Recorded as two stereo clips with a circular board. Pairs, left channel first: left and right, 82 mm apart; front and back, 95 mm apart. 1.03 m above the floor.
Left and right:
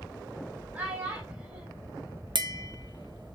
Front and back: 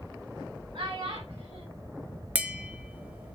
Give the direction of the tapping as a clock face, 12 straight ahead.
4 o'clock.